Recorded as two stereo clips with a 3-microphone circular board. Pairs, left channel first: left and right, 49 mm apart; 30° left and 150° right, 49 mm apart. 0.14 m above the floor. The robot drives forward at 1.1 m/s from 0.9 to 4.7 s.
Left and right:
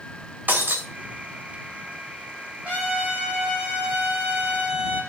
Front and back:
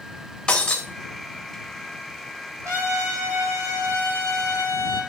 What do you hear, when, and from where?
0.5 s breaking glass: 40° right, 3 m
2.6 s a trumpet: 155° right, 6 m; by 5.0 s 165° right, 8 m